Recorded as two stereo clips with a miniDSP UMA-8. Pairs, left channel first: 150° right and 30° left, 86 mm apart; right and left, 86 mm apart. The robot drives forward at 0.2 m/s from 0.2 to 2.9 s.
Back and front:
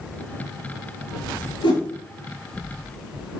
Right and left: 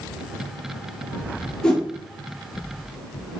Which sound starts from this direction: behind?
A whoosh, at 1.6 s.